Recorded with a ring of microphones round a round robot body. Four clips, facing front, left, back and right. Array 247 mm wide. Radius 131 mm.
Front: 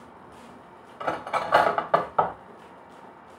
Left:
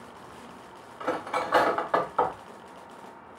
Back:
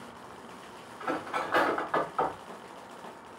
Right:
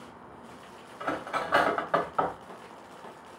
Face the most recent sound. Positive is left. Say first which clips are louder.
# left 3 dB, front 5 dB
turn(degrees=5)